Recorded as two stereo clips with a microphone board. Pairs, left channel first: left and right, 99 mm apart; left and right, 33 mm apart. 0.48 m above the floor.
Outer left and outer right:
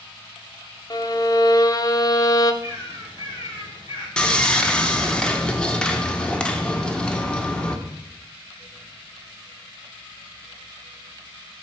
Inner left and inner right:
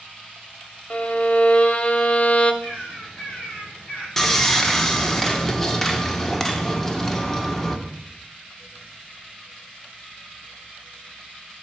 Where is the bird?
65° left (ahead or behind), 4 m.